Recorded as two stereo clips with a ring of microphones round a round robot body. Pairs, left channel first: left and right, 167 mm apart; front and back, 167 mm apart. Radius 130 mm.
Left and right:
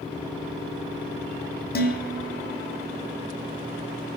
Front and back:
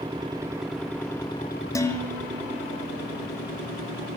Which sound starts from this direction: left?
Dishes clattering, at 1.8 s.